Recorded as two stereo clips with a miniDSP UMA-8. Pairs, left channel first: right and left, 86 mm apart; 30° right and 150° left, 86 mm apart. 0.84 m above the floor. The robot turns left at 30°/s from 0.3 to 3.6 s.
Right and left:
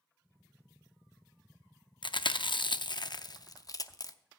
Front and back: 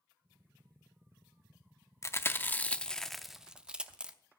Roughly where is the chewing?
Right.